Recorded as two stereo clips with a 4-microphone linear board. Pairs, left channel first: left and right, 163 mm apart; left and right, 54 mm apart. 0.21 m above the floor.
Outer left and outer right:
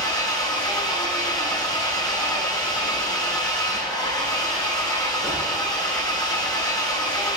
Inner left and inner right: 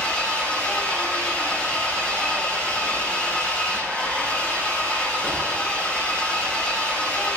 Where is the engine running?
25° left (ahead or behind), 9 m.